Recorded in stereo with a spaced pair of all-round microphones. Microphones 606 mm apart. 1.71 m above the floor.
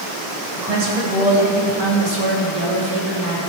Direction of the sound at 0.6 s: 70° right (ahead or behind).